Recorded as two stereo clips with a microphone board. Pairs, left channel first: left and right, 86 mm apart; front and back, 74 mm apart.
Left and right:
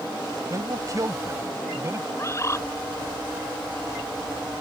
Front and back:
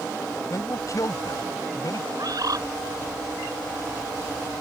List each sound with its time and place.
0.5 s a man speaking: 40° right; by 2.0 s 35° right
2.1 s a bird: 145° left